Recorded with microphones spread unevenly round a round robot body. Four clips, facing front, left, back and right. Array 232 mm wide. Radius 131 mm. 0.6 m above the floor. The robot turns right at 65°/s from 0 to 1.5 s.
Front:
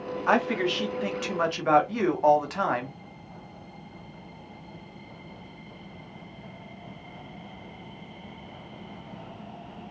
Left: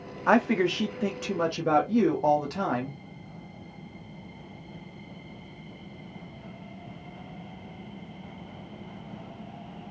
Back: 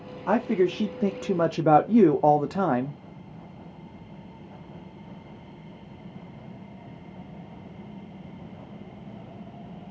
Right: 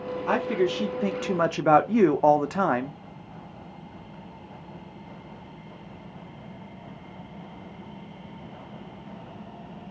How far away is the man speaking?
About 0.7 m.